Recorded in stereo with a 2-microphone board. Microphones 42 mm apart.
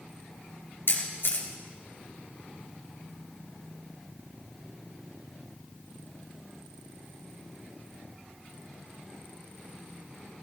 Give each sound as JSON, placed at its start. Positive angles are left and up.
{"t": 0.9, "sound": "a camera shutter", "side_deg": 60, "distance_m": 3.0}